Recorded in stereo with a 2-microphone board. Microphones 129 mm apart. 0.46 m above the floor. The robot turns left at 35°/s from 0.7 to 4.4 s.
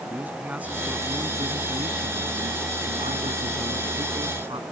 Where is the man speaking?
10° right; by 4.6 s 140° right.